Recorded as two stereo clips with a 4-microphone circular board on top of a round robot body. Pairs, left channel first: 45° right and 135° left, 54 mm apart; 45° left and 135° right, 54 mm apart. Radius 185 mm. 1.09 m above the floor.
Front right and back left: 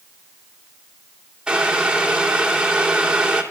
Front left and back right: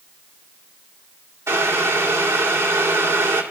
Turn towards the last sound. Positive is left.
turn(degrees=-150)